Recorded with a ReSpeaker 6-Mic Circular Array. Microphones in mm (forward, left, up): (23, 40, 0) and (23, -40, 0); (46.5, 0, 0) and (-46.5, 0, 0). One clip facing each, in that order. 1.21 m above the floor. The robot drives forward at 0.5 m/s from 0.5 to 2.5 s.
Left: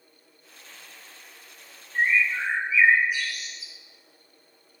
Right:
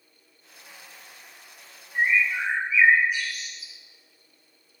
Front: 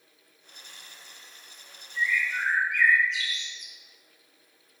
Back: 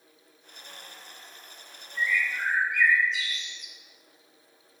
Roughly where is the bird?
Ahead.